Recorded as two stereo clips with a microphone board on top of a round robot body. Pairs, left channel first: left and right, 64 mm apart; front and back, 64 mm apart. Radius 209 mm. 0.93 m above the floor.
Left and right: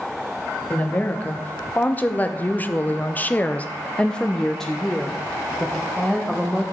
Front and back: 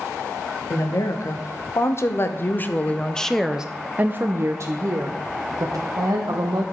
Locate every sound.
0.7 s a woman speaking: 25° left, 1.7 m; by 6.6 s 175° right, 1.8 m